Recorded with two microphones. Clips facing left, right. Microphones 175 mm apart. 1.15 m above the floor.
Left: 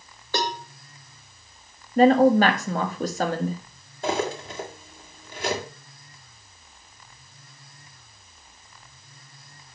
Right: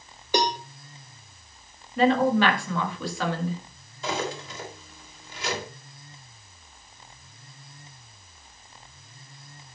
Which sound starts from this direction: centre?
A cowbell, at 0.3 s.